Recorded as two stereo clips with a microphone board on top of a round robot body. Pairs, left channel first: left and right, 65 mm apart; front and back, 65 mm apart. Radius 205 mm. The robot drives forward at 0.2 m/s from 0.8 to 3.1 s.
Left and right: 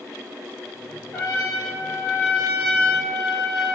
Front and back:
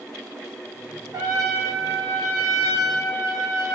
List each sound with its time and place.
1.1 s a trumpet: 170° left, 1.7 m